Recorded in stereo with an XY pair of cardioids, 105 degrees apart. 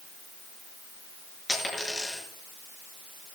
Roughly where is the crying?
No crying in this recording.